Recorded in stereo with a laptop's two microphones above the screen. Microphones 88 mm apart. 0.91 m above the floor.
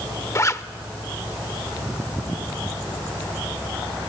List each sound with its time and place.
0.3 s a zipper: 35° left (ahead or behind), 0.6 m